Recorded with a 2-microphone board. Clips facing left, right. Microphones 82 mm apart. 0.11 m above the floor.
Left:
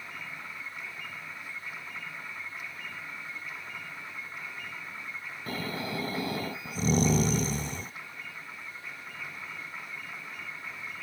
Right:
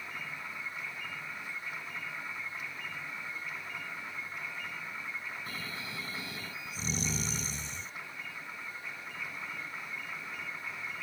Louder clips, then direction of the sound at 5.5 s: Left 7 dB; 50° left (ahead or behind).